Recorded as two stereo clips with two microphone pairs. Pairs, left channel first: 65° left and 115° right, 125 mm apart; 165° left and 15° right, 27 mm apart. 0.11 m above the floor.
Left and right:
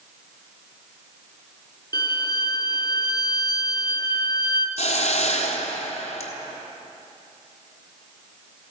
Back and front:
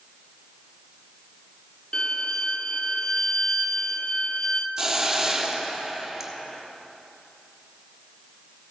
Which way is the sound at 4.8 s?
60° left.